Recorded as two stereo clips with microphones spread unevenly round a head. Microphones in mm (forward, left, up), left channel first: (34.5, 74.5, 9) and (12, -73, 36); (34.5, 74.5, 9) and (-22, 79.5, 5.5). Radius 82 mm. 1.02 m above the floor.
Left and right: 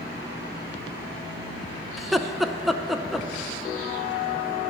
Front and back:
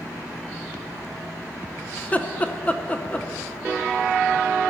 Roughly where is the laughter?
Ahead.